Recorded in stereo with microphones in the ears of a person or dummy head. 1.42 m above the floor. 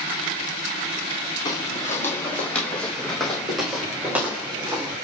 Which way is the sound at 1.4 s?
25° left (ahead or behind).